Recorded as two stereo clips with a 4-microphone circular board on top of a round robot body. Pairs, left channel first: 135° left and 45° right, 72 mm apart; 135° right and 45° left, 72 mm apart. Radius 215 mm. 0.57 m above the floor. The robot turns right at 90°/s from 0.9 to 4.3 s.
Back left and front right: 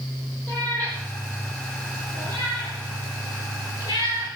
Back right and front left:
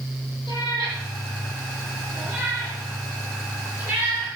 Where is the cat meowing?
150° right, 9.5 m; by 4.3 s 150° left, 9.5 m.